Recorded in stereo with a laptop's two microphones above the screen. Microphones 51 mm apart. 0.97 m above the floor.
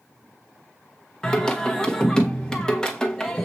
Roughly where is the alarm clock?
I don't hear an alarm clock.